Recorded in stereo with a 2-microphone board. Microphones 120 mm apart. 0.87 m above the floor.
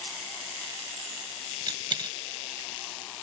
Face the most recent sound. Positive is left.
turn(degrees=-40)  # may be behind; listen again after turning